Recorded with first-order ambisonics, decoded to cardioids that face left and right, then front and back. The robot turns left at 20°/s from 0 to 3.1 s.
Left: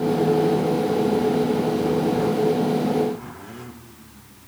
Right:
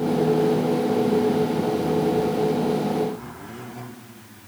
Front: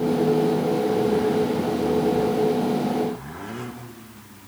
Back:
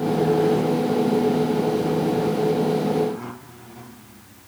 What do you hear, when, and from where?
Only background noise.